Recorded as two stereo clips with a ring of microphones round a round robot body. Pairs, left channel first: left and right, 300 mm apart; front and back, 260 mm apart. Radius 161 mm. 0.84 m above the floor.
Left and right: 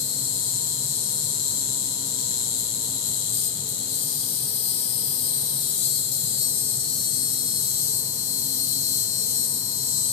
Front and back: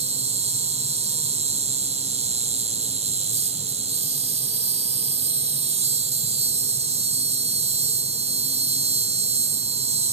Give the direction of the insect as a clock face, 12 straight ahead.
8 o'clock.